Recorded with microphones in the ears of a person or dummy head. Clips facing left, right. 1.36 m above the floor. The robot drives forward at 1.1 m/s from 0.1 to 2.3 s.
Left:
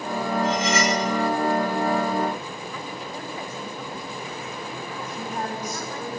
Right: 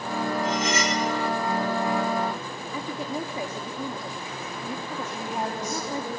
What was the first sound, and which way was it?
Cutlery clinking, 60° left (ahead or behind).